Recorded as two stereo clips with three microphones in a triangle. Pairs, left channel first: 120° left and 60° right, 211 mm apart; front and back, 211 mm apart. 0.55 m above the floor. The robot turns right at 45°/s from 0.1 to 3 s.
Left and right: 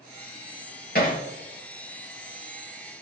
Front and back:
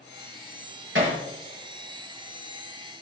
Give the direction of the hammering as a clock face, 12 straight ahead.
7 o'clock.